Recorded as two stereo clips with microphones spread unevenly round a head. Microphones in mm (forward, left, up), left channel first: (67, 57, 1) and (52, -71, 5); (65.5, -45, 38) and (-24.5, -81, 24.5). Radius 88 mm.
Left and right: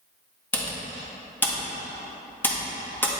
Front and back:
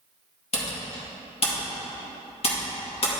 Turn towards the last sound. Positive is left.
turn(degrees=10)